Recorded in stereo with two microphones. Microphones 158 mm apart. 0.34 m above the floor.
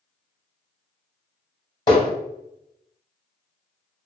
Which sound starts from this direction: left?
Hammering, at 1.9 s.